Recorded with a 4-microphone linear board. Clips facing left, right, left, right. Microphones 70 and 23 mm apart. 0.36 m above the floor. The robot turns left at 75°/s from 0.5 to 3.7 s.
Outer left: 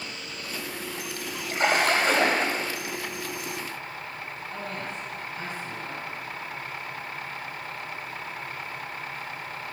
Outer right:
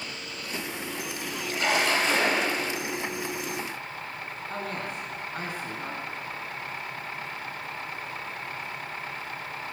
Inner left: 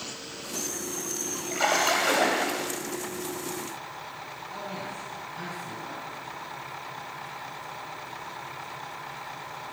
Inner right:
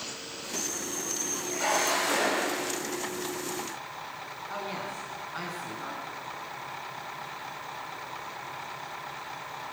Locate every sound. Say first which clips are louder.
1.5 s a splash: outer left 3 dB, inner left 3 dB; 135° left, 2.5 m; by 2.7 s 50° left, 2.5 m
4.5 s a woman speaking: outer right 2 dB, inner right 2 dB; 70° right (ahead or behind), 4 m